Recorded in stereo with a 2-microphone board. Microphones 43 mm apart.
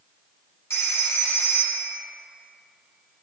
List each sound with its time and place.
0.7 s a phone ringing: 75° left (ahead or behind), 1.6 m